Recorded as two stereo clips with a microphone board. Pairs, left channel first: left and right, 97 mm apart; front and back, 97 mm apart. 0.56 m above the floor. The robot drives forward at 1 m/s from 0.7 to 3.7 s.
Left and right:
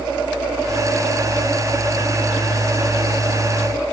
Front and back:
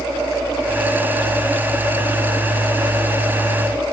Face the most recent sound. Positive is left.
No sound to turn to.